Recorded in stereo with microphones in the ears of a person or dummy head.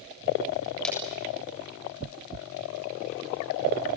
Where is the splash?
5° left (ahead or behind), 7 m.